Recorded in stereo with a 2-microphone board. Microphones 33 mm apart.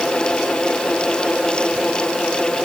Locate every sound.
Only background noise.